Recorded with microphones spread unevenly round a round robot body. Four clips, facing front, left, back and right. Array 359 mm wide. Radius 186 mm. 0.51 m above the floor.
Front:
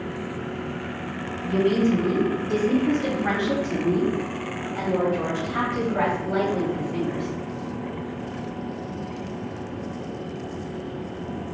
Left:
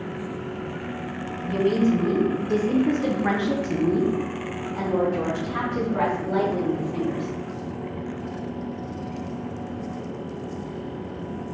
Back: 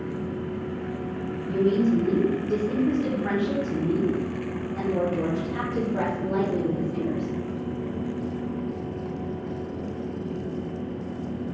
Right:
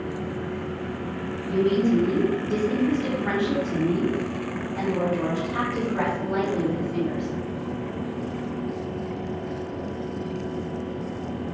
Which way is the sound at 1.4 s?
50° left.